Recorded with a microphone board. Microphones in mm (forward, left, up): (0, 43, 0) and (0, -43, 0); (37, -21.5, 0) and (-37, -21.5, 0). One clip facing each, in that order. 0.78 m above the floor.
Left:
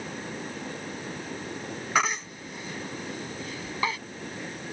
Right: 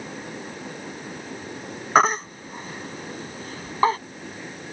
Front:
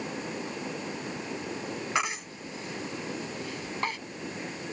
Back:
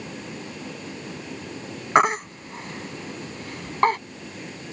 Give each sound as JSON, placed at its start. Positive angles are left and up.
{"t": 1.9, "sound": "a baby crying", "azimuth_deg": -140}